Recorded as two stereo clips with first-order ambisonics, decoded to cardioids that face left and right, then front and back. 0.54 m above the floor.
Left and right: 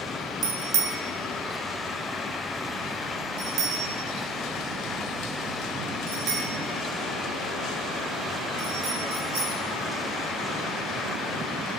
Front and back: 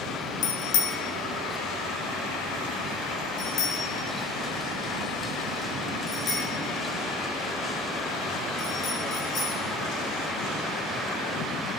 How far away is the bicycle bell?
About 2.5 m.